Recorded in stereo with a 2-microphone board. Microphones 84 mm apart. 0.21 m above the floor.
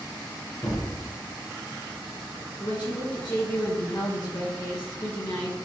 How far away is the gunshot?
About 2 m.